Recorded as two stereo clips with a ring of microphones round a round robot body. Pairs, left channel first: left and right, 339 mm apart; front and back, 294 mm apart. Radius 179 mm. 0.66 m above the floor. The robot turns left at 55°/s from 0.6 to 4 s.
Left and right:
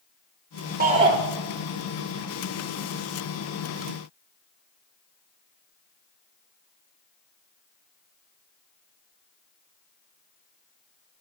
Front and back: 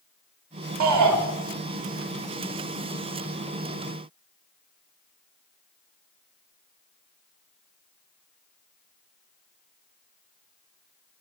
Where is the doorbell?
No doorbell in this recording.